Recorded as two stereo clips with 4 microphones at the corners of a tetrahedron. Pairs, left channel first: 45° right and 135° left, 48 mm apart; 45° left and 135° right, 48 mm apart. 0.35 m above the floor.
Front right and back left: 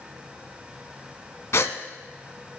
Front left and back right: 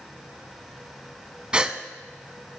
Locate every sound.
1.5 s a gasp: 65° right, 0.7 m